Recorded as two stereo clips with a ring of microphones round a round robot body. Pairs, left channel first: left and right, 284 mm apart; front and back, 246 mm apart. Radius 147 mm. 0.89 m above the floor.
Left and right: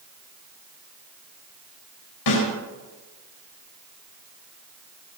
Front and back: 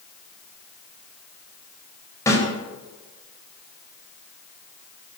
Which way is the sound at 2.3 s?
80° left.